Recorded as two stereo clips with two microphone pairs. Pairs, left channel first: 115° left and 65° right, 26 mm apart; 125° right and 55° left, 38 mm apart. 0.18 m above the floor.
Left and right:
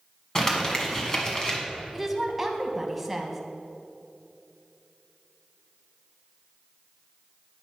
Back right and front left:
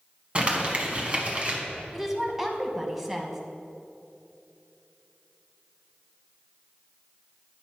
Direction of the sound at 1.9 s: Straight ahead.